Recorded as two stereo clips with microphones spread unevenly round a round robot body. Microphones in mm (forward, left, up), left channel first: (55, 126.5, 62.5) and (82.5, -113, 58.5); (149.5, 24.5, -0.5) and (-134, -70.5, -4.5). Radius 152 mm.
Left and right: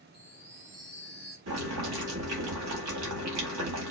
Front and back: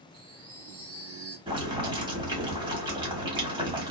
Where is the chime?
125° right, 1.6 m.